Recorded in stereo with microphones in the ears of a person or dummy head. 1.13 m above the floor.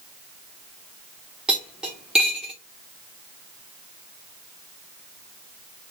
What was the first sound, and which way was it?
Cutlery clinking, 5° right (ahead or behind).